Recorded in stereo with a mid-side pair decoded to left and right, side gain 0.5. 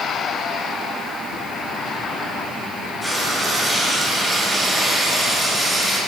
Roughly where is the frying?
Ahead.